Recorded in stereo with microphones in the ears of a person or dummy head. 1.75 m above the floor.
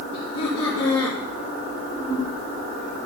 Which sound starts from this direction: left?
Laughter, at 0.1 s.